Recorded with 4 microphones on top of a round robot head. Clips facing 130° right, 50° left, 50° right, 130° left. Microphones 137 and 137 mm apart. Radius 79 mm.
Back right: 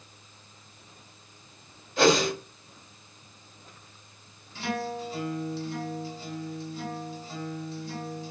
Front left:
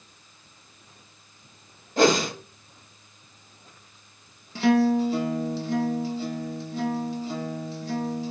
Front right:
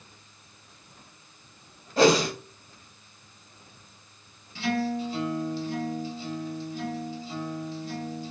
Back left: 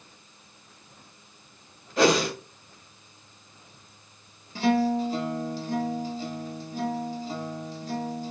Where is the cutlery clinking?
I don't hear cutlery clinking.